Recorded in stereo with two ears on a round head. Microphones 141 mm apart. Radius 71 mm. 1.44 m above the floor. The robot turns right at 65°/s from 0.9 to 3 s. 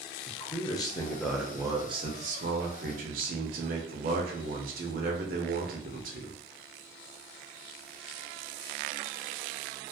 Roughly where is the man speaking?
Behind left.